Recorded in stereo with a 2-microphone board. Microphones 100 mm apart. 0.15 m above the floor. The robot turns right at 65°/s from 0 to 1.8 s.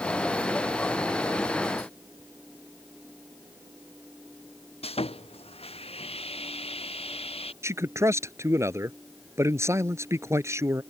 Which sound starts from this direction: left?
Sawing, at 4.8 s.